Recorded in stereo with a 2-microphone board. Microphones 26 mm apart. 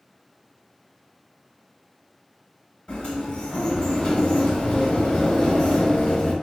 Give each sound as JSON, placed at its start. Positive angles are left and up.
{"t": 2.9, "sound": "a sliding door", "side_deg": 45, "distance_m": 1.1}